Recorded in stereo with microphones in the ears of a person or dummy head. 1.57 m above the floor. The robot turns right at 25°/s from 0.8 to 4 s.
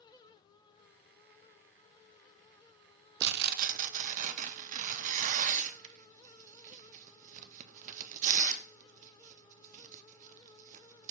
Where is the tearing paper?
60° right (ahead or behind), 0.7 m; by 11.1 s 40° right (ahead or behind), 0.7 m.